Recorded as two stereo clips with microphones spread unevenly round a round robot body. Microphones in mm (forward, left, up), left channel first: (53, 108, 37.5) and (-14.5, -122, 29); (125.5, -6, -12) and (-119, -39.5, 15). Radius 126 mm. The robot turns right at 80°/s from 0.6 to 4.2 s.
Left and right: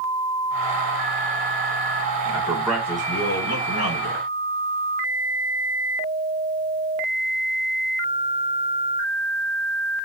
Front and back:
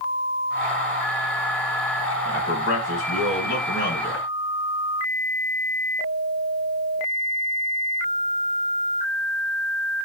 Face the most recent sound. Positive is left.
turn(degrees=100)